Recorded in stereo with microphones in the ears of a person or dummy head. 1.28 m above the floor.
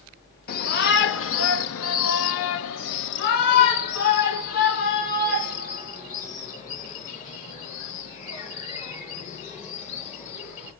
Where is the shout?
45° left (ahead or behind), 1.1 m; by 10.7 s 40° left (ahead or behind), 5.5 m.